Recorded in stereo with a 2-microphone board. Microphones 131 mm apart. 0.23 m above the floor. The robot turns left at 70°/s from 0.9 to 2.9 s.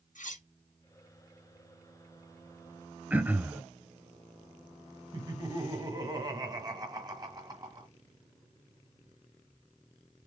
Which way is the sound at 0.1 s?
75° left (ahead or behind).